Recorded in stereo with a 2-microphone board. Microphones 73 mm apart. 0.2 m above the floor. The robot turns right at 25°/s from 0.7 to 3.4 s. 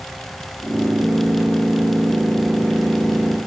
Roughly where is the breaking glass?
No breaking glass in this recording.